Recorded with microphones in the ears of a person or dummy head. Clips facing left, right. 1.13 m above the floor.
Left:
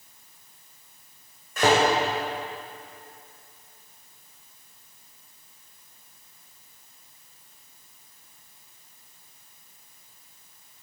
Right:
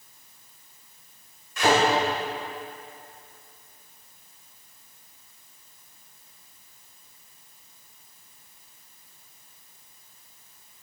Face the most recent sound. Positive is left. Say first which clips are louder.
# left 1 dB
turn(degrees=45)  # may be behind; listen again after turning